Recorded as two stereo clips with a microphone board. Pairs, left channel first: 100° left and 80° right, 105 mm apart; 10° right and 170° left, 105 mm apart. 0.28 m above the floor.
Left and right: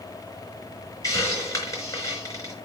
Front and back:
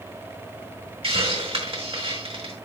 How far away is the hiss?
About 3.5 m.